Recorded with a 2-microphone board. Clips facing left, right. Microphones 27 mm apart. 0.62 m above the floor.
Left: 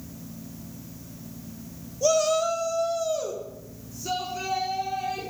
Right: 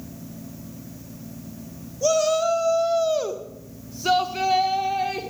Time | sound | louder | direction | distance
2.0 | a shout | right 2 dB | centre (ahead or behind) | 1.3 m